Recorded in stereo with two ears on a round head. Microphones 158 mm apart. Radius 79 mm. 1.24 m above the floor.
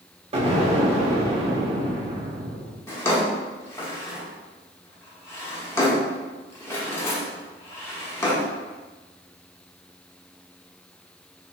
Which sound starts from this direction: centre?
A drawer, at 2.9 s.